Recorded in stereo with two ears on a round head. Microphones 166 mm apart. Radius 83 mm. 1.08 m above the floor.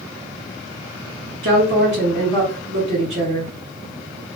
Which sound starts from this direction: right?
A woman speaking, at 1.4 s.